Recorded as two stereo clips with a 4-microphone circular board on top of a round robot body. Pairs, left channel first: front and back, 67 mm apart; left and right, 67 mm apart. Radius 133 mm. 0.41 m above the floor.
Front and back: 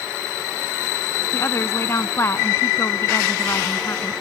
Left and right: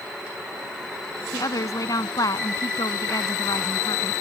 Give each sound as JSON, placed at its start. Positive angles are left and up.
{"t": 1.3, "sound": "a woman speaking", "azimuth_deg": 55}